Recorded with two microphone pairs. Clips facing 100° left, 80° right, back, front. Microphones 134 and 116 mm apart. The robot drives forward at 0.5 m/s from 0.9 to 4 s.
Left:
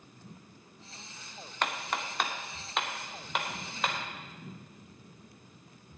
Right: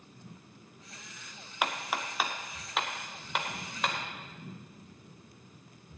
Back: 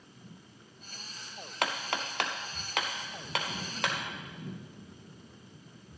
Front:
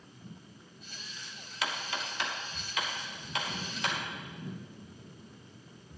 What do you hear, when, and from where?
1.6 s hammering: 160° right, 0.8 m; by 4.0 s 170° right, 1.9 m